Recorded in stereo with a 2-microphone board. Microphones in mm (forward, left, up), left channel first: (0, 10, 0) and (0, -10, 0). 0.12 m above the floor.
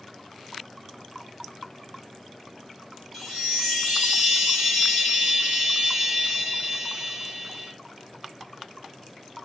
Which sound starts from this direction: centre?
A chime, at 3.1 s.